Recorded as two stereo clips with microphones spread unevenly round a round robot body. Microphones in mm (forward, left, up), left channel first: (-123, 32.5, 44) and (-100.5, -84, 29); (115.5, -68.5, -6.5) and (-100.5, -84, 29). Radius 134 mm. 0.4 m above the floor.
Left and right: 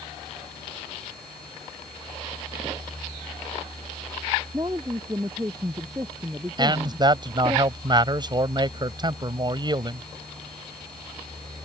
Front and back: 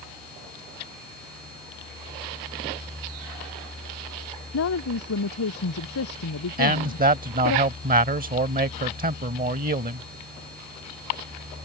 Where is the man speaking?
125° right.